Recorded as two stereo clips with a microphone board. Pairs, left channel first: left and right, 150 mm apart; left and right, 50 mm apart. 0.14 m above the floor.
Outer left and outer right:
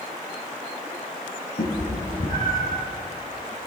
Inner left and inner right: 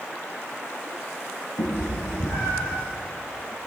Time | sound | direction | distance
1.6 | a cat meowing | 65° left (ahead or behind) | 2.5 m